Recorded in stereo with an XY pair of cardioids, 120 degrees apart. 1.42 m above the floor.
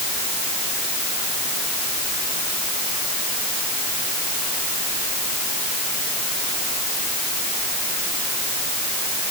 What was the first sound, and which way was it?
Only background noise.